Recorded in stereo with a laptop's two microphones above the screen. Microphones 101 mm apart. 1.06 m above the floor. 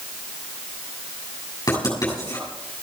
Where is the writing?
40° left (ahead or behind), 7 m.